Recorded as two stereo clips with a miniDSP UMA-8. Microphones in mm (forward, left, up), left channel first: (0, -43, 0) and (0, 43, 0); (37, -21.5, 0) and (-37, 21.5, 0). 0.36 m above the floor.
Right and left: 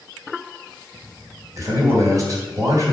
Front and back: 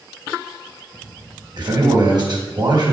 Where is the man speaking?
130° left, 2.5 m.